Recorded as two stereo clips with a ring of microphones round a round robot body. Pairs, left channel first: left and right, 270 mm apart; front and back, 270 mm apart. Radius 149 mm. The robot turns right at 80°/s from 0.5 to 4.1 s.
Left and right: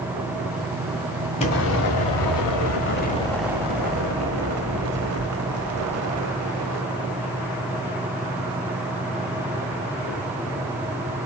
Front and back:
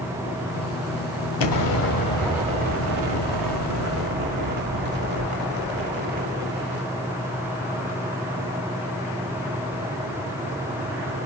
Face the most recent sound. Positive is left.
turn(degrees=-125)